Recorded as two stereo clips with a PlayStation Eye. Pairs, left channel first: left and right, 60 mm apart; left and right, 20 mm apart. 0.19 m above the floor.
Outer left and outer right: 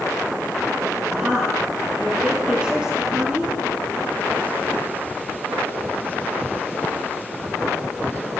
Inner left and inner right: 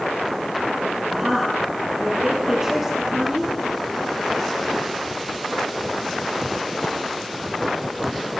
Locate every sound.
1.1 s a woman speaking: 15° right (ahead or behind), 5 m